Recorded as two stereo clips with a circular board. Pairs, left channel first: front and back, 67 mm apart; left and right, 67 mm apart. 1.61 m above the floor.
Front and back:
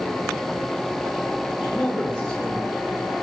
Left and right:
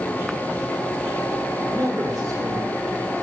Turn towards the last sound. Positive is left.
turn(degrees=-75)